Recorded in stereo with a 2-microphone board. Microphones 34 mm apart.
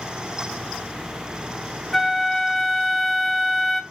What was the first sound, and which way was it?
A flute, 10° left (ahead or behind).